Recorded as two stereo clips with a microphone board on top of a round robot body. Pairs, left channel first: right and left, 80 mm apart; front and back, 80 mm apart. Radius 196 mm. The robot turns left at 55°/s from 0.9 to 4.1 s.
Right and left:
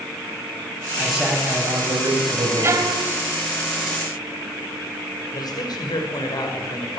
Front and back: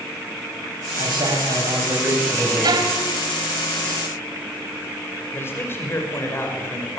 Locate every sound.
1.0 s a man speaking: 175° right, 7.5 m; by 2.9 s 80° left, 7.5 m
2.6 s a violin: 150° left, 3 m; by 3.1 s 120° left, 3 m
5.3 s a man speaking: 60° right, 6 m